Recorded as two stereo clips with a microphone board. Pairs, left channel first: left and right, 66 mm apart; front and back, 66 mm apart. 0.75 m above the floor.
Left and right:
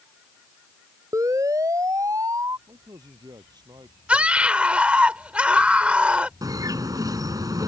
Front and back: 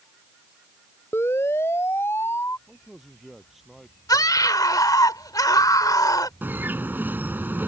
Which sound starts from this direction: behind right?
A bird, at 6.4 s.